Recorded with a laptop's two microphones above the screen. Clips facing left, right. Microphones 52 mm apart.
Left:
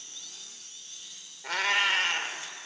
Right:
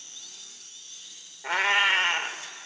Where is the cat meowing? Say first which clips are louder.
Right 4 dB; 25° right (ahead or behind), 0.7 m.